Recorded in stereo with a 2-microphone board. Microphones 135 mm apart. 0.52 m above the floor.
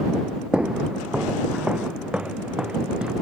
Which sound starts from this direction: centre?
Footsteps, at 0.5 s.